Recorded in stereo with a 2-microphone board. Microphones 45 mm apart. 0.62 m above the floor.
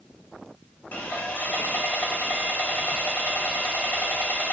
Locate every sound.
0.9 s sawing: 40° left (ahead or behind), 1.2 m